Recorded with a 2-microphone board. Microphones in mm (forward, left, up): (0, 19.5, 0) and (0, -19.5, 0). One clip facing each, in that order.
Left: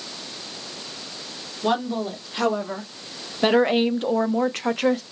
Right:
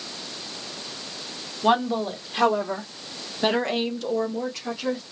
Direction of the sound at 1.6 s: 15° right (ahead or behind).